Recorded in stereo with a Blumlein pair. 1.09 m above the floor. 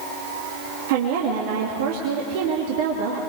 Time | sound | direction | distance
0.9 | a woman speaking | 50° right | 2 m